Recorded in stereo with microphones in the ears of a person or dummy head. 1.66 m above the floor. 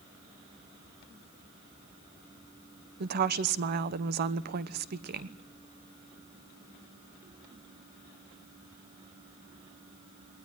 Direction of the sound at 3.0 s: 50° right (ahead or behind).